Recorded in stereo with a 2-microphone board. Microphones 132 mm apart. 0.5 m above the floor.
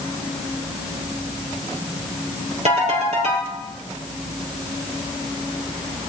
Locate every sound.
2.6 s a ringtone: 55° right (ahead or behind), 5 m